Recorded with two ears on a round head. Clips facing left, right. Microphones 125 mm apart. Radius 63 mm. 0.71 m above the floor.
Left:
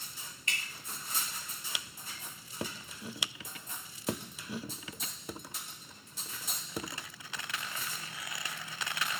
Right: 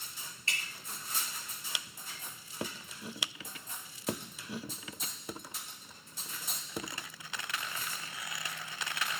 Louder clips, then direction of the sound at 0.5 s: Even; 30° right (ahead or behind).